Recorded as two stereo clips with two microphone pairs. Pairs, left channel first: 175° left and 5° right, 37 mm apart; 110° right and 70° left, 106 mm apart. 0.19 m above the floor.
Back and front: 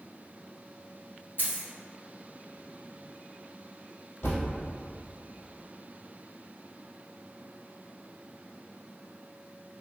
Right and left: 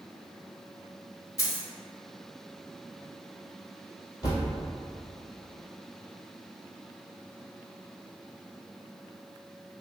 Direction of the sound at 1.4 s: 160° right.